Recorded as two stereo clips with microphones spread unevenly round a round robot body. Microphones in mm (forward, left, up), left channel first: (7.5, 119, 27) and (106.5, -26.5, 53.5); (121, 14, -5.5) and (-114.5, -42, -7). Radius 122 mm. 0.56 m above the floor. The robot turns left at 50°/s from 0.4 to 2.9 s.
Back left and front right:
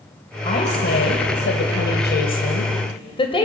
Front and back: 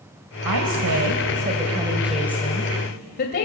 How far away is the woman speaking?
About 2 m.